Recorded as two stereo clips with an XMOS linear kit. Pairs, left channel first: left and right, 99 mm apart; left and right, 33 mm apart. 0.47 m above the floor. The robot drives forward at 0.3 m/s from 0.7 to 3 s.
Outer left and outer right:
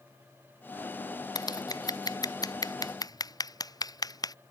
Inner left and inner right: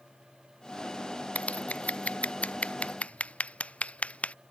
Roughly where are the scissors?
Left.